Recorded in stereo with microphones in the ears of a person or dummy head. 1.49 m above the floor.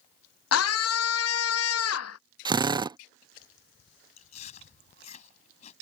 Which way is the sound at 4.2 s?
40° left (ahead or behind).